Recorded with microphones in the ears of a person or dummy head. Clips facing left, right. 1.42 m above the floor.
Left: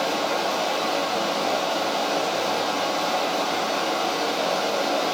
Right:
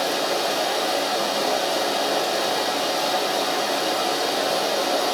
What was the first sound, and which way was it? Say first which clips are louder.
Running water: right 1 dB; 25° right (ahead or behind).